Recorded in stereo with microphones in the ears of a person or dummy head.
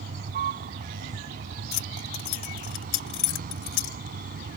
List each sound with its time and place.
0.0 s a vehicle: 50° right (ahead or behind)
1.7 s keys jangling: 55° left (ahead or behind)